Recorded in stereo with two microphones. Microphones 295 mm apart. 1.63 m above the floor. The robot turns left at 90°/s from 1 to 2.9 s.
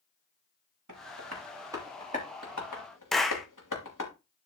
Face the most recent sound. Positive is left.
turn(degrees=0)  # may be behind; listen again after turning